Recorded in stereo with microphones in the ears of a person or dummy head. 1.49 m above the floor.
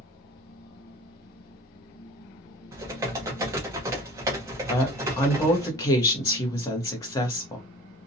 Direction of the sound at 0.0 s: 50° left (ahead or behind).